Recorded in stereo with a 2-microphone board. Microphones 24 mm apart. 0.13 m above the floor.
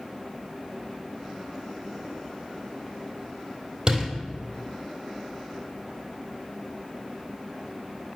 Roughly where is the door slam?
Right.